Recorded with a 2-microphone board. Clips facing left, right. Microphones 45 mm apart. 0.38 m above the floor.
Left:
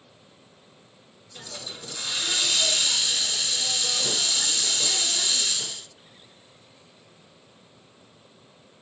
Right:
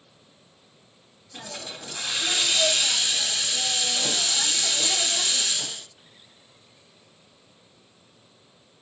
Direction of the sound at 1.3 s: 65° right (ahead or behind).